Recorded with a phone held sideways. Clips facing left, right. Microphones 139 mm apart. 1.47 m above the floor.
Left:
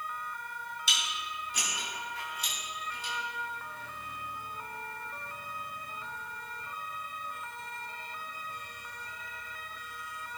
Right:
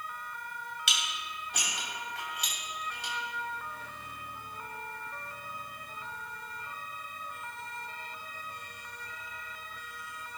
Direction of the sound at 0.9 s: 80° right.